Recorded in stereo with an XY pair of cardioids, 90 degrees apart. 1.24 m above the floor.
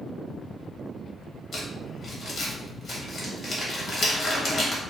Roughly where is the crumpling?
Ahead left.